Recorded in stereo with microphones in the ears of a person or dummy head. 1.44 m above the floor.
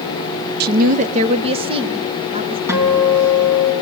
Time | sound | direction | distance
0.6 | a woman speaking | 55° right (ahead or behind) | 0.6 m
2.7 | a guitar | 15° right (ahead or behind) | 4.5 m